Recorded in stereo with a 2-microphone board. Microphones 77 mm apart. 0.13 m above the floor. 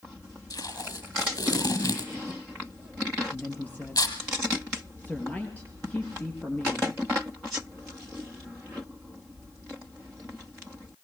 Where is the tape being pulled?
60° left (ahead or behind), 2.5 m.